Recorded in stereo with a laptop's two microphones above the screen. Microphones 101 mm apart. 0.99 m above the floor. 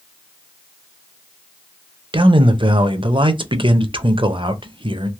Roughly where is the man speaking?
Right.